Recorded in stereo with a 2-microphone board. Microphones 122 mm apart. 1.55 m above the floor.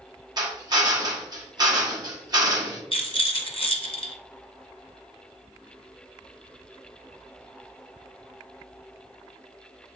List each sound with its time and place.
0.4 s a drill: 35° right (ahead or behind), 1.2 m
2.9 s a rattle: 45° left (ahead or behind), 1.0 m